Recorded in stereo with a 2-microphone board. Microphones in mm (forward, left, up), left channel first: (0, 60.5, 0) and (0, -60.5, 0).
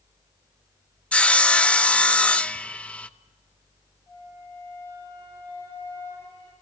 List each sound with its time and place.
1.1 s sawing: 10° left (ahead or behind), 0.6 m
4.1 s a flute: 25° left (ahead or behind), 9.5 m